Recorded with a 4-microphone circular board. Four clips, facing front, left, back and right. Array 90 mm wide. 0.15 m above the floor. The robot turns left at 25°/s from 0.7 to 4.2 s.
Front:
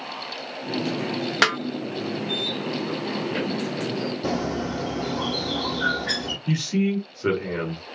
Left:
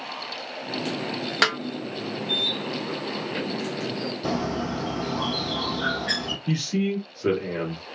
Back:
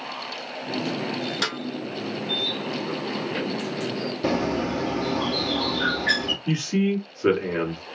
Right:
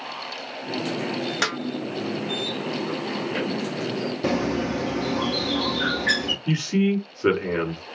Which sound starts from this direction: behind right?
A bird, at 4.2 s.